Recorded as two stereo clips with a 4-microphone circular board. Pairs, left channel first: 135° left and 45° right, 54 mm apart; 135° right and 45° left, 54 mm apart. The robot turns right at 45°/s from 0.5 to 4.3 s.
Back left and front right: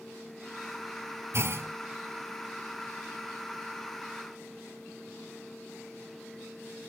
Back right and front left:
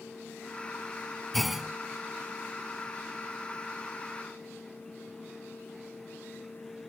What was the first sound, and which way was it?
A clunk, 50° right.